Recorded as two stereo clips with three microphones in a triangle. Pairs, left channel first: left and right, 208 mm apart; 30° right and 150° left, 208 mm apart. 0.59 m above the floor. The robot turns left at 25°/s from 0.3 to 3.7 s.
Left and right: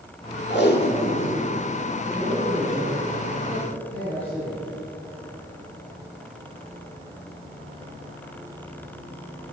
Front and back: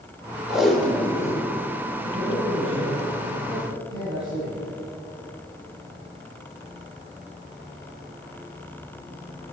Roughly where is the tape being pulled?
Ahead left.